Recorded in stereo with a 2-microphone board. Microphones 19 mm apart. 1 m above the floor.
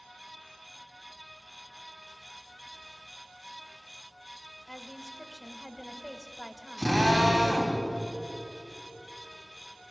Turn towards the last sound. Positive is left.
turn(degrees=-35)  # may be behind; listen again after turning